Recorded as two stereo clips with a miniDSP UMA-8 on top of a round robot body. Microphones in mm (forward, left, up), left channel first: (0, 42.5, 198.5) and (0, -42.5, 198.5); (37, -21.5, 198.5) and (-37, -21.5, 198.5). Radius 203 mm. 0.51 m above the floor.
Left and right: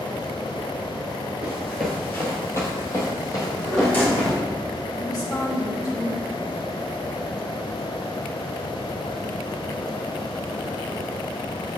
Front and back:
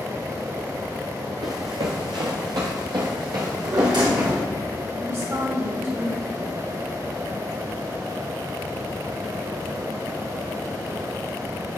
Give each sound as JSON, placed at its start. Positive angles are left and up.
{"t": 1.4, "sound": "running footsteps", "azimuth_deg": -160, "distance_m": 0.6}
{"t": 3.4, "sound": "a drawer", "azimuth_deg": 155, "distance_m": 2.0}
{"t": 5.0, "sound": "a woman speaking", "azimuth_deg": 130, "distance_m": 3.0}